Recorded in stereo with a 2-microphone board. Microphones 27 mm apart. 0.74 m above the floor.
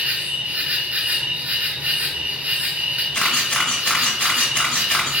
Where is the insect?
75° right (ahead or behind), 0.7 m.